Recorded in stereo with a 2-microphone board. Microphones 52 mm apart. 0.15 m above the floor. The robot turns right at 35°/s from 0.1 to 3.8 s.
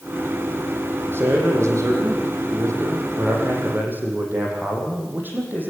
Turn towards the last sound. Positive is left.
turn(degrees=-40)